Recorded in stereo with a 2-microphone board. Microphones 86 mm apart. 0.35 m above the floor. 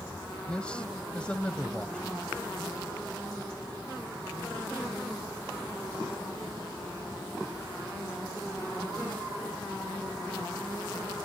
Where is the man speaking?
10° left (ahead or behind).